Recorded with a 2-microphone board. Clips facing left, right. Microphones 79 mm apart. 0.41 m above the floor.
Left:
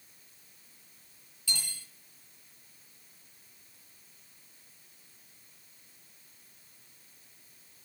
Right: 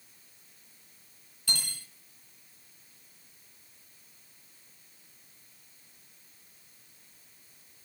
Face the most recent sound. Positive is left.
turn(degrees=-60)  # may be behind; listen again after turning